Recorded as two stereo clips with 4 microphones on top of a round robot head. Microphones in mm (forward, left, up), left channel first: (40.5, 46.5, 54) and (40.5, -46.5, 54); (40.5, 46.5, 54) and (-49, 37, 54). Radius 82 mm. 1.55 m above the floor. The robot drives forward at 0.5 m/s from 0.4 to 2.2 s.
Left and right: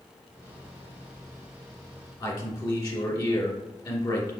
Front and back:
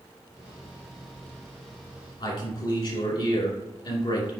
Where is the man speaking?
45° left, 2.5 m.